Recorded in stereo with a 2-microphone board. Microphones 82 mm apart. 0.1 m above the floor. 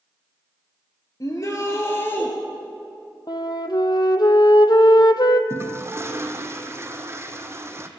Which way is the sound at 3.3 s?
60° left (ahead or behind).